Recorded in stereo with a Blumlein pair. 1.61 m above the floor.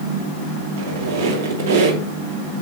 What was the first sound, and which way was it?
A squeak, 55° right.